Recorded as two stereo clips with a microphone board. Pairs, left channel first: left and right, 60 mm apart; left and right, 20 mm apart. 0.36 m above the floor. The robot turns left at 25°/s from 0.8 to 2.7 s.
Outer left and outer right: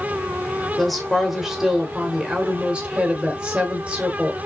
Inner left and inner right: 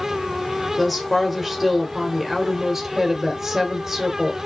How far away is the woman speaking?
About 1.0 m.